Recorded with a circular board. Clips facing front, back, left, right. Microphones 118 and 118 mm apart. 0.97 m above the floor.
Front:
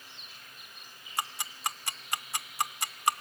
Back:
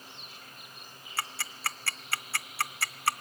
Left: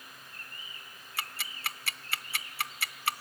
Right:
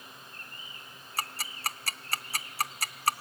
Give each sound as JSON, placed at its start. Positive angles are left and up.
{"t": 1.2, "sound": "ticking", "azimuth_deg": -65, "distance_m": 0.7}